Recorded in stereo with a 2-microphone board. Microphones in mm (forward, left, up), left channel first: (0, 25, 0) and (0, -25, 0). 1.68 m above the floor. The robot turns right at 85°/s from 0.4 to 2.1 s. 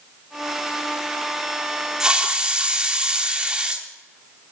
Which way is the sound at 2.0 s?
10° right (ahead or behind).